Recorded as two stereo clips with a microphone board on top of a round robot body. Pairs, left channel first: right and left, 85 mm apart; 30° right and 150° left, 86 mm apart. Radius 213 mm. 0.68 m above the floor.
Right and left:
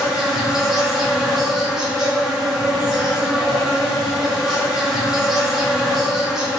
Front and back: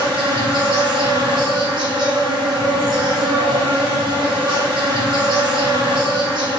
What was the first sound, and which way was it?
An insect, 175° left.